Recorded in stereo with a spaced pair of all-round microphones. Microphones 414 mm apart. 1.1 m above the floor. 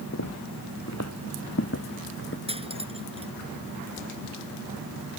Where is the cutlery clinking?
15° right (ahead or behind).